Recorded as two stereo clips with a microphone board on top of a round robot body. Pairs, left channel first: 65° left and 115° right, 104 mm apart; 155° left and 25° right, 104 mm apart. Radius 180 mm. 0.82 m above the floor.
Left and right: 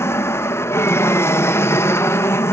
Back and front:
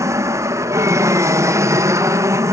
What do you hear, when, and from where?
0.0 s an aircraft: 20° left